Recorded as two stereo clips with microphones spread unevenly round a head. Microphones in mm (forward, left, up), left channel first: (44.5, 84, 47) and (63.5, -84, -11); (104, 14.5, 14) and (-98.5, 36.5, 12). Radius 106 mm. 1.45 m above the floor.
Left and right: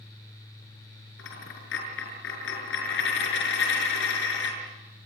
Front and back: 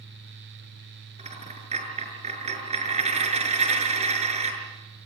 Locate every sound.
1.2 s a dropped coin: 115° left, 6.5 m